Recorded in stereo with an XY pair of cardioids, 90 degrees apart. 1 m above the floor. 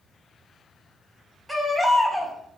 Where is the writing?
I don't hear writing.